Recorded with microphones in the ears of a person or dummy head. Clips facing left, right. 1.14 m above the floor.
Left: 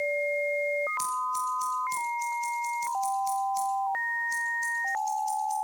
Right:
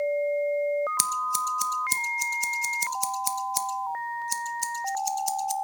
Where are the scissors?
75° right (ahead or behind), 1.0 m.